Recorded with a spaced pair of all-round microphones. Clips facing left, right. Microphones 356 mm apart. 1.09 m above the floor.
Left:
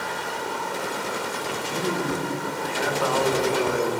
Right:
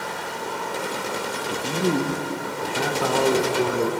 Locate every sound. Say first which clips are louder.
1.5 s a man speaking: right 6 dB; 50° right (ahead or behind), 1.0 m